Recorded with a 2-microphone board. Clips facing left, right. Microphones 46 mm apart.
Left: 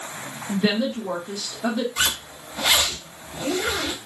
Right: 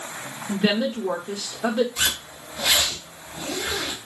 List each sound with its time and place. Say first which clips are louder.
0.5 s a woman speaking: even; 20° right (ahead or behind), 0.8 m
2.0 s a zipper: left 1 dB; 50° left (ahead or behind), 1.1 m